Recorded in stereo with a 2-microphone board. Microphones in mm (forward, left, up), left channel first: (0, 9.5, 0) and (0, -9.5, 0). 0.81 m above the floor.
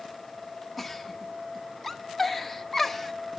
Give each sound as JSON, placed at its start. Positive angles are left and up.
{"t": 0.8, "sound": "a giggle", "side_deg": 5, "distance_m": 0.8}